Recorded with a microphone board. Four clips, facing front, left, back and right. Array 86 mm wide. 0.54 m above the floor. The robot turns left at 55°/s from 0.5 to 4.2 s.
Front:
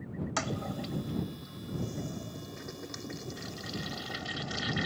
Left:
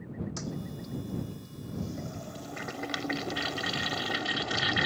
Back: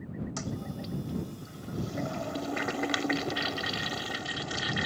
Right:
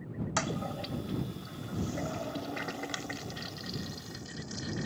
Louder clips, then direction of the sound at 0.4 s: Right 4 dB, front 3 dB; 55° right.